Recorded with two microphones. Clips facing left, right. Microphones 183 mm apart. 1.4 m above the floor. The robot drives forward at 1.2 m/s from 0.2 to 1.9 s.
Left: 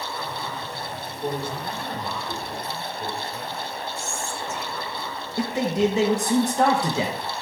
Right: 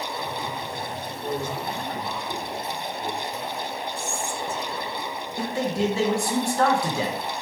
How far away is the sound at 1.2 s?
About 4.5 m.